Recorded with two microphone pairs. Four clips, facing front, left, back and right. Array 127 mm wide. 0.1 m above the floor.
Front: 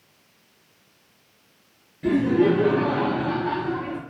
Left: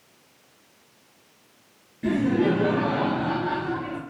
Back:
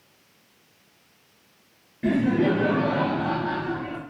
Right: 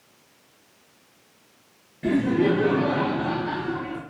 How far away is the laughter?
About 1.6 m.